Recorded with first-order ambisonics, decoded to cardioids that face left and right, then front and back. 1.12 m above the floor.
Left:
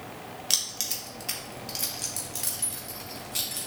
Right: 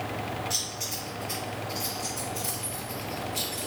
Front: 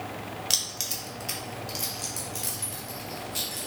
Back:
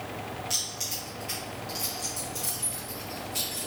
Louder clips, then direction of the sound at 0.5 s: Left 3 dB, front 4 dB; 50° left.